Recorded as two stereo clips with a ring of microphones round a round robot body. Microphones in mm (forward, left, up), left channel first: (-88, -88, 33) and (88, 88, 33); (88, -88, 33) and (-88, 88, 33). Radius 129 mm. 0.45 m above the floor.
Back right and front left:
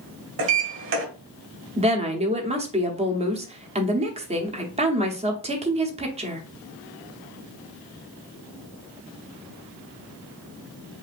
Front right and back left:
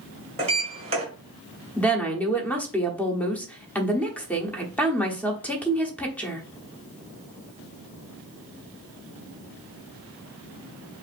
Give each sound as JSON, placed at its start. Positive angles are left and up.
{"t": 0.4, "sound": "a sliding door", "azimuth_deg": 75, "distance_m": 1.7}
{"t": 1.8, "sound": "a woman speaking", "azimuth_deg": 30, "distance_m": 1.0}